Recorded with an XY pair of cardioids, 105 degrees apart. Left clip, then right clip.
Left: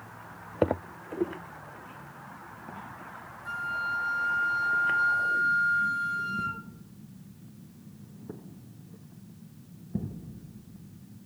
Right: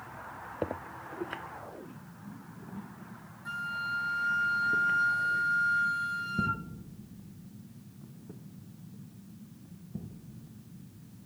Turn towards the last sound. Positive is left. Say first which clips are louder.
# left 3 dB
turn(degrees=-25)